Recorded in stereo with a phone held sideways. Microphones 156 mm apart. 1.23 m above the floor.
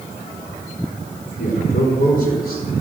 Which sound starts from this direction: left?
A man speaking, at 1.4 s.